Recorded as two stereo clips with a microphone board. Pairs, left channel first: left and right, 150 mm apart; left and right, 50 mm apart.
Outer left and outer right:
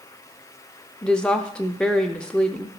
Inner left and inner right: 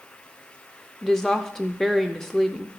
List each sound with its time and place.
1.0 s a woman speaking: 5° left (ahead or behind), 0.6 m